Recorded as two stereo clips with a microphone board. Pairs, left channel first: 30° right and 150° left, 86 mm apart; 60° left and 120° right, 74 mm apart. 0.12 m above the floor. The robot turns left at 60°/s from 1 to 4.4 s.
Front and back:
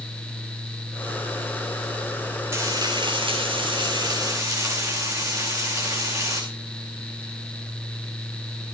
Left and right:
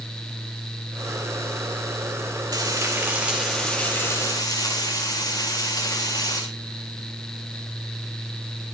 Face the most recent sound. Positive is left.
turn(degrees=95)